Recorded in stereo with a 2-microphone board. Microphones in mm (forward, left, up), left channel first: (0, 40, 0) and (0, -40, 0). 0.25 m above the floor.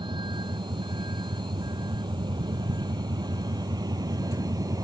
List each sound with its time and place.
0.0 s a vehicle: 70° right (ahead or behind); by 4.8 s 45° right (ahead or behind)